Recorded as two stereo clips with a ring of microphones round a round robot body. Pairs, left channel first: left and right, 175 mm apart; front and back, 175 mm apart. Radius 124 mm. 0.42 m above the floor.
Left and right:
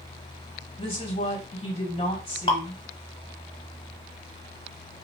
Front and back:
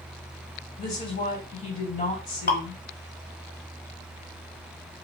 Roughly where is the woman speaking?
Ahead left.